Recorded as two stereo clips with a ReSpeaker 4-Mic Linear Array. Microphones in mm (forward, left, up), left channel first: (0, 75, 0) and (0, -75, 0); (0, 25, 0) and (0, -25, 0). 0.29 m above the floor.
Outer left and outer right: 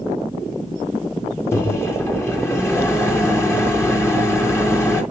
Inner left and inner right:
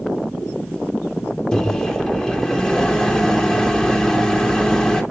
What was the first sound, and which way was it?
A microwave, 15° left (ahead or behind).